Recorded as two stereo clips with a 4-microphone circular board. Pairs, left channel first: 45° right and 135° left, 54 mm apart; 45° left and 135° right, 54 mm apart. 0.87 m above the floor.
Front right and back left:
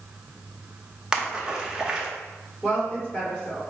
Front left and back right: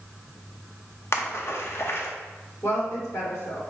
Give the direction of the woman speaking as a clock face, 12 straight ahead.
11 o'clock.